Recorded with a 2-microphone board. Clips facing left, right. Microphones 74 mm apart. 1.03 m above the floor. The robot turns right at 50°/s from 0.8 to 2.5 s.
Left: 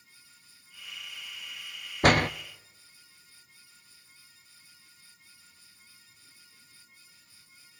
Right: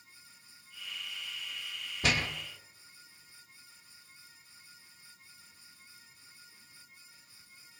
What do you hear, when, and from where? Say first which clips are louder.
2.0 s a door slam: left 9 dB; 50° left (ahead or behind), 0.5 m; by 2.3 s 60° left (ahead or behind), 0.5 m